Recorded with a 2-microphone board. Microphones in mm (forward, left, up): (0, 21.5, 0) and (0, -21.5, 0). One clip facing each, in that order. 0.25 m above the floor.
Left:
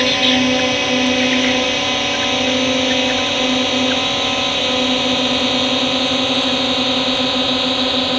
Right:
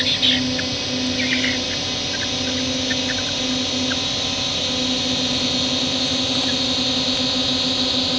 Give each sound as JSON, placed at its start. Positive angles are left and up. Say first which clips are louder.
{"t": 0.0, "sound": "a drone", "louder": "left 5 dB", "side_deg": 50}